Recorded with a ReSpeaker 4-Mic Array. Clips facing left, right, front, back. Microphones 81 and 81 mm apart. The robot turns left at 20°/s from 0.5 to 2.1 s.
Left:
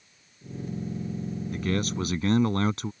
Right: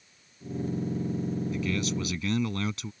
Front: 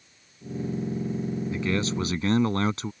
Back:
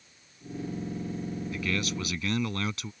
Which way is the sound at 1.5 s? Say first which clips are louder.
Left 1 dB, front 5 dB; 60° left.